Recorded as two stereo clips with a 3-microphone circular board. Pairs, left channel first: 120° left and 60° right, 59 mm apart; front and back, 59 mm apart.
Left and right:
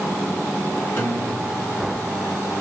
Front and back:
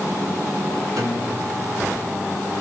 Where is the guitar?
165° left, 1.4 m.